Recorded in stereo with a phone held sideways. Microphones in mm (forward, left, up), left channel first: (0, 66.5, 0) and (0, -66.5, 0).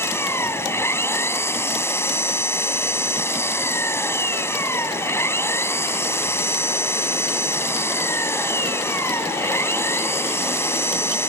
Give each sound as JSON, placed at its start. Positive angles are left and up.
{"t": 0.0, "sound": "an engine running", "side_deg": 20}